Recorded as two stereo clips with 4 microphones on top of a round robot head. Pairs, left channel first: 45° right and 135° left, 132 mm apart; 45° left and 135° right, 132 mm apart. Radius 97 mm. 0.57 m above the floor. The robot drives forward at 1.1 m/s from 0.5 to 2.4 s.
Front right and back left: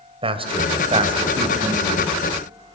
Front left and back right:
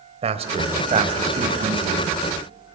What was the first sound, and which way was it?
A man speaking, 175° right.